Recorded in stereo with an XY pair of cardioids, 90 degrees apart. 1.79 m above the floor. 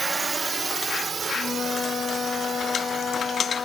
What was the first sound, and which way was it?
A drone, 25° right.